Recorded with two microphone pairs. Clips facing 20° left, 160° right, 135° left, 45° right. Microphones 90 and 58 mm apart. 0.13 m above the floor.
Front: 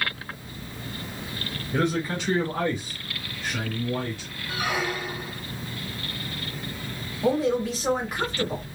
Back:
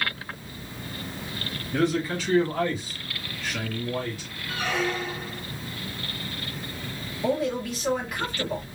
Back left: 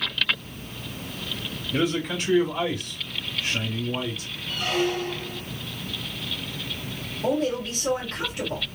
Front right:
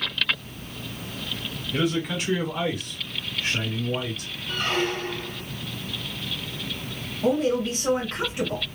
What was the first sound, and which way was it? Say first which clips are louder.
A man speaking: back 1 dB, even; 60° left.